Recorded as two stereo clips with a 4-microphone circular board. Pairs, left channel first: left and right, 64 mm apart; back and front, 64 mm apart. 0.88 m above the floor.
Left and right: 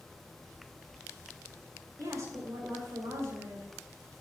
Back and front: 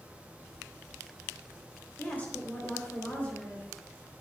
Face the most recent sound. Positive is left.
turn(degrees=-115)